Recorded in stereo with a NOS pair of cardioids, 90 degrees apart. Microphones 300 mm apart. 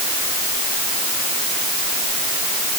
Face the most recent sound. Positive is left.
No sound to turn to.